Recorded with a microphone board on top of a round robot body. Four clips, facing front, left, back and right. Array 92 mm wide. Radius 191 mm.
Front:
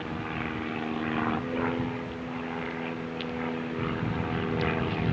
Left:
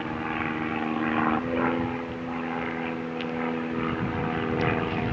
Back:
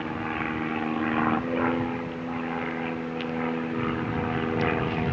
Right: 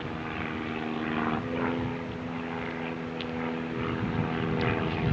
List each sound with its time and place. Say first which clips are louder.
0.0 s an aircraft: left 5 dB, back 4 dB; 130° left; by 5.1 s 135° left